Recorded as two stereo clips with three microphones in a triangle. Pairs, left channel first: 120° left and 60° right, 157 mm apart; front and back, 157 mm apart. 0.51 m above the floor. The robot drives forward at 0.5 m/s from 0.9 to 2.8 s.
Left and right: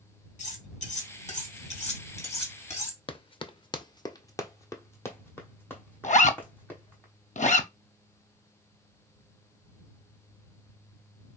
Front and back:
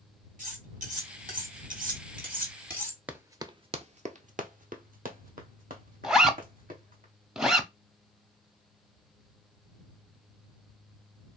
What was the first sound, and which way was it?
Cutlery clinking, 155° left.